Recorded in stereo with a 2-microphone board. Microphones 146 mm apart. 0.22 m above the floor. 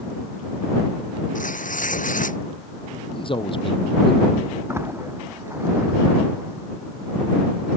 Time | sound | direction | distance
1.4 | tearing paper | 65° left (ahead or behind) | ?
3.1 | a man speaking | 35° left (ahead or behind) | ?
4.7 | a splash | 20° right (ahead or behind) | ?